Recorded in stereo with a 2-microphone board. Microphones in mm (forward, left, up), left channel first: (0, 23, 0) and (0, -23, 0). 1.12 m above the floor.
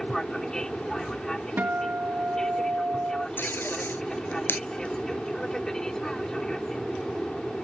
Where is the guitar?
40° right (ahead or behind).